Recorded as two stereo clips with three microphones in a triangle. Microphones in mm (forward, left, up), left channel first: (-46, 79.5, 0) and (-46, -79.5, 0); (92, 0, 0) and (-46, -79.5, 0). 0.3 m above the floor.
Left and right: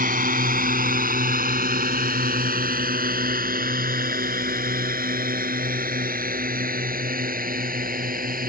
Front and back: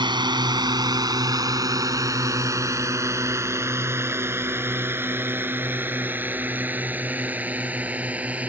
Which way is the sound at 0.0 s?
95° right.